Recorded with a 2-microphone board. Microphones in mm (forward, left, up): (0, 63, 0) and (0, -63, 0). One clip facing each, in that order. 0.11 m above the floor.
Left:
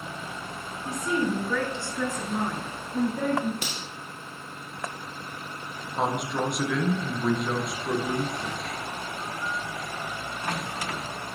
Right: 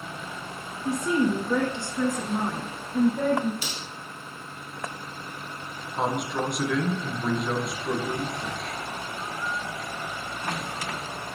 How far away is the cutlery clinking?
About 1.8 m.